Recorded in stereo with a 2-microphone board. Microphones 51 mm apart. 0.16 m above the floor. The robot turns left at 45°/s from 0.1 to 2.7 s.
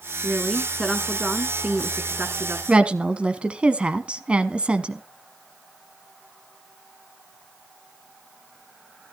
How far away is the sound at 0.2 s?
About 1.8 m.